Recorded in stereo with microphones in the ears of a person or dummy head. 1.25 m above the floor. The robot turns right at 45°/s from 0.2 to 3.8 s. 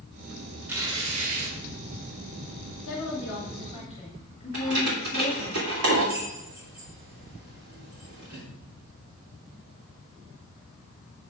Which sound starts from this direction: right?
Keys jangling, at 4.5 s.